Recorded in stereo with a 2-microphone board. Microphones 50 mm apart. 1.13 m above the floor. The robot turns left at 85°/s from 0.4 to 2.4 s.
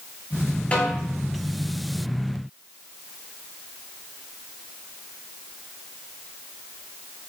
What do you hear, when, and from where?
0.7 s a snare drum: 30° left (ahead or behind), 1.3 m; by 0.9 s 10° left (ahead or behind), 1.3 m